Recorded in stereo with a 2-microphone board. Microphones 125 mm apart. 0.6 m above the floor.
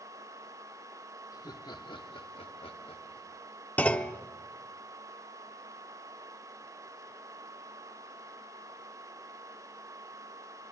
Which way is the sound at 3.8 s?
10° left (ahead or behind).